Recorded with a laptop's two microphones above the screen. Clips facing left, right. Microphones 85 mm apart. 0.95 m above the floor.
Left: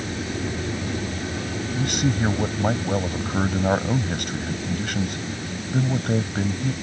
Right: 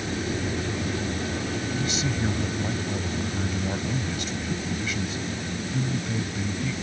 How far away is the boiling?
No boiling in this recording.